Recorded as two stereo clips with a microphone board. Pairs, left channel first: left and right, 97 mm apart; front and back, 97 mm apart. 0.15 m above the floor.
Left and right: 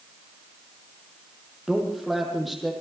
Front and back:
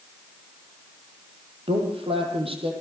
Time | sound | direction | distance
1.7 | a man speaking | straight behind | 6 m